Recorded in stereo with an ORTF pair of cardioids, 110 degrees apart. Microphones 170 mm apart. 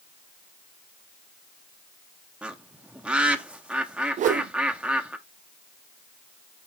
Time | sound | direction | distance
2.4 | a bird | 5° right | 1.0 m
4.2 | a whoosh | 50° right | 0.6 m